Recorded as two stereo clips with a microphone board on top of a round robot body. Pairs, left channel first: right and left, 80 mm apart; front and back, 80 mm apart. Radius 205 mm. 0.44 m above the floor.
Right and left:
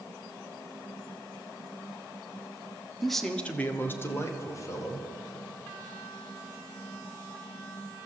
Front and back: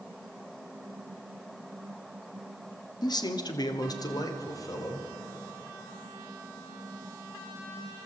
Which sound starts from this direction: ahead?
A man speaking, at 3.0 s.